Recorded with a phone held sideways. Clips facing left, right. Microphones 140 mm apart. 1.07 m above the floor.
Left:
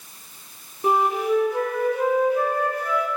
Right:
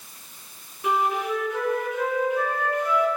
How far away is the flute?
About 4.5 m.